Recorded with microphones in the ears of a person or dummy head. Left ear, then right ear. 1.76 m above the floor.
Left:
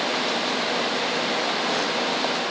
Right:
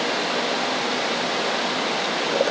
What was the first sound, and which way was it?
Only background noise.